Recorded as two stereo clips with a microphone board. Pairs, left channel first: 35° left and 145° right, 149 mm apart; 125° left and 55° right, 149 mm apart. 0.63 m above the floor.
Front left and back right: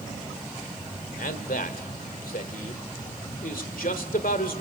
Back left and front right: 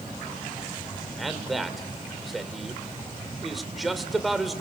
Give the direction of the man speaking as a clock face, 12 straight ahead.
11 o'clock.